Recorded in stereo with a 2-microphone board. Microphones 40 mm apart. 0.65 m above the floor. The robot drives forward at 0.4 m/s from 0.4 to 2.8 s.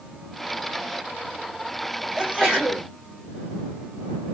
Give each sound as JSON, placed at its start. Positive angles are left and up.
{"t": 2.2, "sound": "a sneeze", "side_deg": -10, "distance_m": 3.0}